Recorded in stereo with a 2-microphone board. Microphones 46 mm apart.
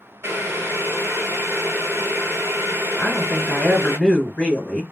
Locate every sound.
0.2 s boiling: 65° right (ahead or behind), 0.9 m
3.0 s a woman speaking: 15° left (ahead or behind), 1.9 m